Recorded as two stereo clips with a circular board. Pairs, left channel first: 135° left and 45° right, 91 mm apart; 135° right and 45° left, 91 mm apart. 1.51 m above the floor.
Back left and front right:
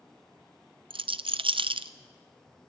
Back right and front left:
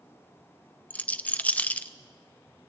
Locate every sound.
0.9 s a rattle: 65° right, 0.6 m